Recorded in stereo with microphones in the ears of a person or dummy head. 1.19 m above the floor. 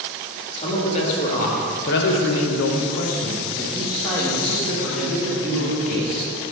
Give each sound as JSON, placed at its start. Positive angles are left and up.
{"t": 0.6, "sound": "a man speaking", "side_deg": 35, "distance_m": 1.9}